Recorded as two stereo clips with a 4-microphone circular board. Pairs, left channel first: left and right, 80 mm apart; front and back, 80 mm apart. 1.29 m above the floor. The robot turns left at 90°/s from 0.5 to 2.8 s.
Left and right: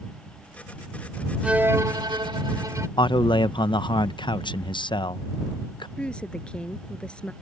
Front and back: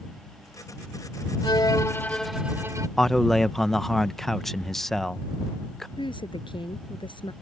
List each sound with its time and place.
1.4 s a violin: 10° right; by 2.9 s 135° right
3.0 s a man speaking: 85° left
6.0 s a woman speaking: 10° left